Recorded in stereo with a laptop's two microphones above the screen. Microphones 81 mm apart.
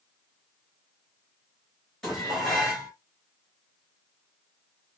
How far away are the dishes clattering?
About 3 m.